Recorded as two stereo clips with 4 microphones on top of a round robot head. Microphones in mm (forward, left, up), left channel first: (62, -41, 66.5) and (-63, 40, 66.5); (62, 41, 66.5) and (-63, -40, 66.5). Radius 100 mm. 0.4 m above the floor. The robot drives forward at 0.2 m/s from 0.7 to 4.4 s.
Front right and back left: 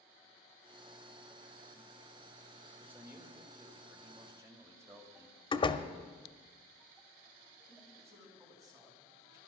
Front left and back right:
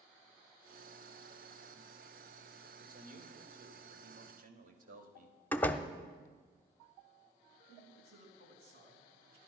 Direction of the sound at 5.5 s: 35° right.